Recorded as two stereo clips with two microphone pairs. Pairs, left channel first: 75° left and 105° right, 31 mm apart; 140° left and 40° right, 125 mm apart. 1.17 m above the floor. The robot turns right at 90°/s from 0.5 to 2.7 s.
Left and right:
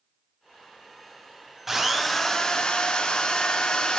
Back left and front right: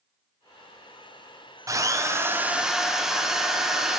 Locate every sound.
1.7 s a drill: 50° right, 0.6 m; by 4.0 s 45° left, 0.6 m